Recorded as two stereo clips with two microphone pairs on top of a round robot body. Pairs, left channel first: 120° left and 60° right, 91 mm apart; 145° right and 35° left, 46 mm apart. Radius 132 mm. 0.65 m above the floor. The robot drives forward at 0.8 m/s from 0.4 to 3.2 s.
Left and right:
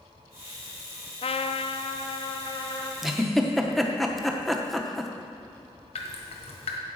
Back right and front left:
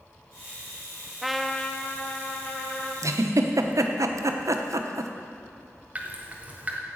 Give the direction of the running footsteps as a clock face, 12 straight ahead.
No running footsteps in this recording.